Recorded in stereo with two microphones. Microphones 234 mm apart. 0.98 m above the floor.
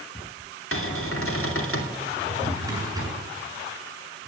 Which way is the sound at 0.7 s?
65° left (ahead or behind).